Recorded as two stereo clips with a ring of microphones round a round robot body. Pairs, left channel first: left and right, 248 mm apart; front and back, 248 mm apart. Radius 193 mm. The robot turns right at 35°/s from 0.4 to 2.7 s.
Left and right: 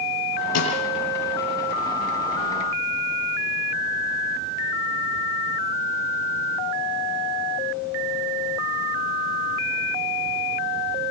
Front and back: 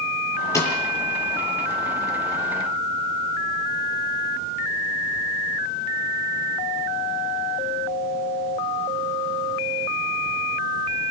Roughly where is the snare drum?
Left.